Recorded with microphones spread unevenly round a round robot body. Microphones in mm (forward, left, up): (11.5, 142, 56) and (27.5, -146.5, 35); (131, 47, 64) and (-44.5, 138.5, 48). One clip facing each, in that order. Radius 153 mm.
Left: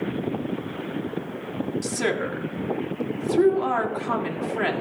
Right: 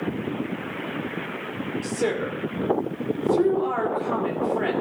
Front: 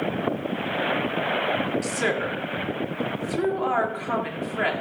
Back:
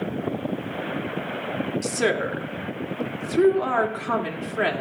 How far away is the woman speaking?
About 2.5 m.